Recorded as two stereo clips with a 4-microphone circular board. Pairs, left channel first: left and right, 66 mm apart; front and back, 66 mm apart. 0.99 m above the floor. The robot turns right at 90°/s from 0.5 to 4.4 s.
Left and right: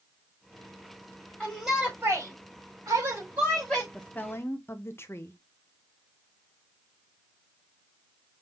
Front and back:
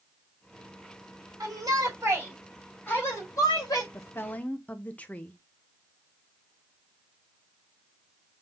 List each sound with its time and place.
1.4 s a shout: 160° left, 3.5 m; by 3.8 s 20° left, 3.5 m
3.9 s a woman speaking: 15° left, 0.9 m; by 5.4 s 60° left, 0.9 m